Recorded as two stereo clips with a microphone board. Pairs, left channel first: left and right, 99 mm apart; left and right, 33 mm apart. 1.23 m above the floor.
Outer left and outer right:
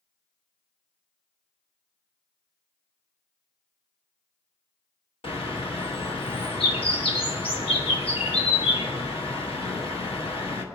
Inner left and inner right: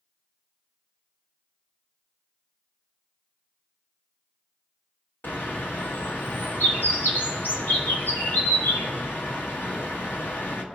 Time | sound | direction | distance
5.2 | a bird | 70° left (ahead or behind) | 1.3 m